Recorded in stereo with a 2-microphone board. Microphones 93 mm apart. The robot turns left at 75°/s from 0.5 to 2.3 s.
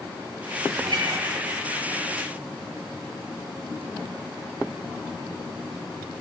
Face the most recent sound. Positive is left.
turn(degrees=160)